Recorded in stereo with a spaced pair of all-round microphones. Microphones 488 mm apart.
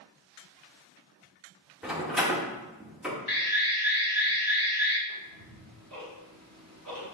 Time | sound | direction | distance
1.8 | a door slam | centre (ahead or behind) | 1.5 m
3.3 | an alarm | 45° left (ahead or behind) | 1.2 m
5.1 | ticking | 35° right (ahead or behind) | 3.5 m